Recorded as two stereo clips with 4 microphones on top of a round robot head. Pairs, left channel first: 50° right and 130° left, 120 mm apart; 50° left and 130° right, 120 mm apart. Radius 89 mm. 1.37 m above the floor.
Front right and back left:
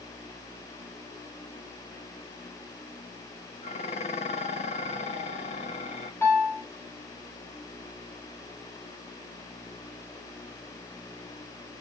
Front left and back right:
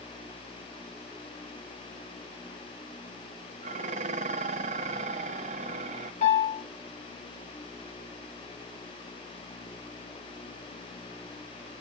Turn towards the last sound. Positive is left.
turn(degrees=20)